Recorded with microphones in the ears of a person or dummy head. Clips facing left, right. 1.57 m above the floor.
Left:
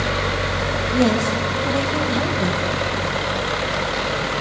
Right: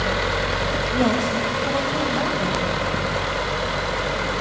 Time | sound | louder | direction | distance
0.9 | a woman speaking | left 3 dB | 25° left (ahead or behind) | 1.9 m